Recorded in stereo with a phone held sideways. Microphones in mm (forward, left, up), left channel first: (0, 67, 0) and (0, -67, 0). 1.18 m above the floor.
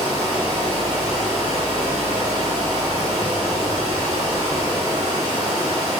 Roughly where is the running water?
Right.